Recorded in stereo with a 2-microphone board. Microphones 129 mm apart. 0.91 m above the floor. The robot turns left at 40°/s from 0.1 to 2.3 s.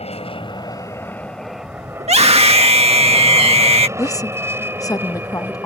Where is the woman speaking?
25° left (ahead or behind).